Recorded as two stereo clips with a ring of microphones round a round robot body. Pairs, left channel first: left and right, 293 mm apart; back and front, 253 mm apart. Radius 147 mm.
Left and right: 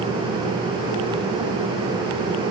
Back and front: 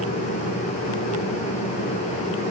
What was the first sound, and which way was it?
Only background noise.